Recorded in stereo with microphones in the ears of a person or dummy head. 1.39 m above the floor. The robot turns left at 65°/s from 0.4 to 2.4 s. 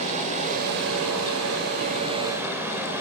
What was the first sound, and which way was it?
Running water, 35° right.